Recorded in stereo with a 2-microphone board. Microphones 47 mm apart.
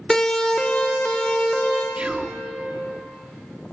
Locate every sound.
0.1 s a siren: 15° left (ahead or behind), 2 m; by 1.9 s 25° left (ahead or behind), 4 m
2.0 s whispering: 25° right (ahead or behind), 0.6 m